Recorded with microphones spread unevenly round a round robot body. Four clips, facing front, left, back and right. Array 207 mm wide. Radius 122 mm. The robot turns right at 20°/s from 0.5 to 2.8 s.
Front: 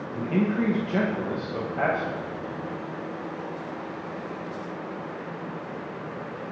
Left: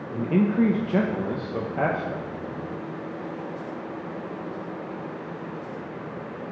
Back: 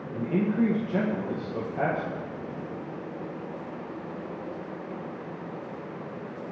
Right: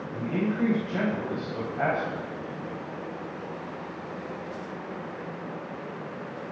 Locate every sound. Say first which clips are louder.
0.1 s a man speaking: left 6 dB, front 1 dB; 70° left, 0.8 m; by 2.2 s 105° left, 0.8 m